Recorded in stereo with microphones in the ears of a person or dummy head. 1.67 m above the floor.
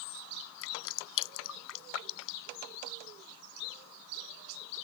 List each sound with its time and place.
0.6 s dripping: 70° left (ahead or behind)